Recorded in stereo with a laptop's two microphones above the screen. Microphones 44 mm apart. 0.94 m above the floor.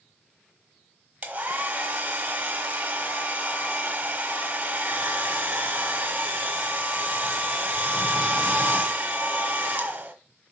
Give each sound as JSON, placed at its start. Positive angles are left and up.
{"t": 1.2, "sound": "a hair dryer", "side_deg": -50, "distance_m": 1.7}